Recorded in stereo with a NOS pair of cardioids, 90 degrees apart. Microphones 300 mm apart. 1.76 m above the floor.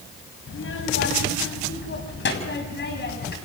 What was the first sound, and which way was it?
A child speaking, 50° left.